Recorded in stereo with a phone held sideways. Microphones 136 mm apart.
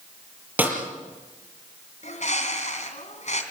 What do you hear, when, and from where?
0.6 s a snare drum: 10° right (ahead or behind), 5 m
2.0 s a bird: 60° left (ahead or behind), 2.5 m